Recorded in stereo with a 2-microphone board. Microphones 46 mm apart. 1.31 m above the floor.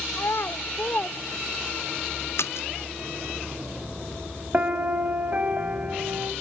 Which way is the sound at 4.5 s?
35° right (ahead or behind).